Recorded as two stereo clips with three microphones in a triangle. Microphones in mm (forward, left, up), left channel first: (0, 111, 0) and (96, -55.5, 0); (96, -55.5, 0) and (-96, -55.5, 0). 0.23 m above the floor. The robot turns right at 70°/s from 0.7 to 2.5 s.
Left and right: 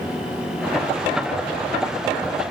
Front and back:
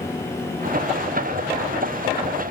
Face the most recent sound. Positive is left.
No sound to turn to.